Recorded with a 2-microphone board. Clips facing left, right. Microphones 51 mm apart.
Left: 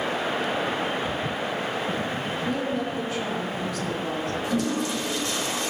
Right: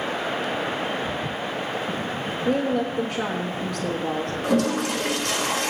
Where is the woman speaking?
45° right (ahead or behind), 1.1 m.